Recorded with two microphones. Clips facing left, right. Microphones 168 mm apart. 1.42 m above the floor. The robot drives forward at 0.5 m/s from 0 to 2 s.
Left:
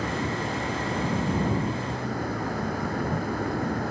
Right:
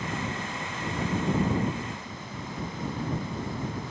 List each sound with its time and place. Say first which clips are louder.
0.0 s a vehicle: left 5 dB; 65° left (ahead or behind)